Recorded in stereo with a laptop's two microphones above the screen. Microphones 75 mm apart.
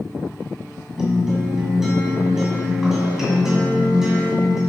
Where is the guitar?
5° right (ahead or behind), 2 m.